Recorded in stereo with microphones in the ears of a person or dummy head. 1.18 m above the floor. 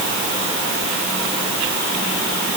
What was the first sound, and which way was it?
Only background noise.